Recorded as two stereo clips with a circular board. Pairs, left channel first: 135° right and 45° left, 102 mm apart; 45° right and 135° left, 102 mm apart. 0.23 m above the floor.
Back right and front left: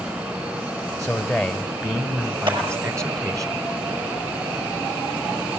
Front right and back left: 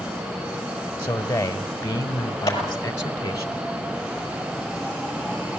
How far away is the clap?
About 5.5 m.